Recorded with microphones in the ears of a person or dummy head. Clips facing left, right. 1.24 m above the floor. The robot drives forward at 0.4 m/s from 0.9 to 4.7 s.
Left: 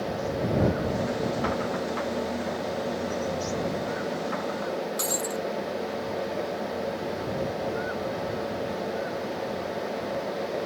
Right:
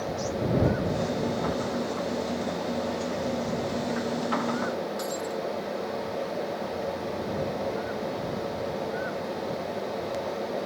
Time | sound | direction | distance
5.0 | breaking glass | 50° left (ahead or behind) | ?